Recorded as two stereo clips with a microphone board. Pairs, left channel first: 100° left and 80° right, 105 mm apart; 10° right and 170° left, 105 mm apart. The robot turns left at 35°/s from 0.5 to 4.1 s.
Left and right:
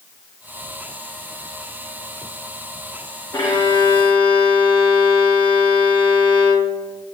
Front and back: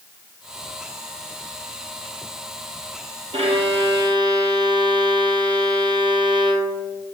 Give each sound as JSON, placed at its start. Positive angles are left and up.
{"t": 3.3, "sound": "a violin", "azimuth_deg": 155, "distance_m": 0.9}